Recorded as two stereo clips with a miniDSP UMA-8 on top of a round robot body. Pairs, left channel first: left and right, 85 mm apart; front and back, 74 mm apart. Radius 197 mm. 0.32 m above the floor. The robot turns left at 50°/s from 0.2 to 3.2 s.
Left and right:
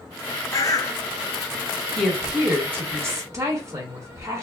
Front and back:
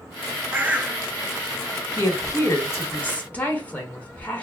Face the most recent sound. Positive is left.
turn(degrees=-60)